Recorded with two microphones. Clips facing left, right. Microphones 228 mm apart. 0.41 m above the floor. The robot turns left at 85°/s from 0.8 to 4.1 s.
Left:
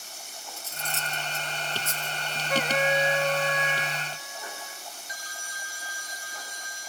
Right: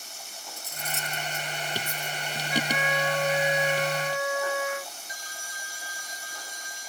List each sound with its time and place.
0.6 s cutlery clinking: 15° right (ahead or behind); by 2.2 s 75° left (ahead or behind)
2.5 s a trumpet: 65° left; by 4.9 s 70° right